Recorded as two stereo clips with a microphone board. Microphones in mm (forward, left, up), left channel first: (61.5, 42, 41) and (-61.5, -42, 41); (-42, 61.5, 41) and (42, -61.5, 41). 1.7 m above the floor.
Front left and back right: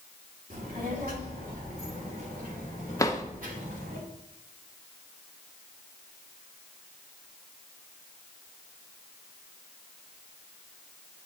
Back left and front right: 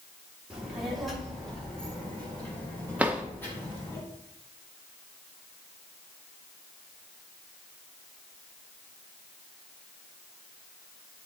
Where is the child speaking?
140° right, 3 m; by 4.0 s 160° right, 5.5 m.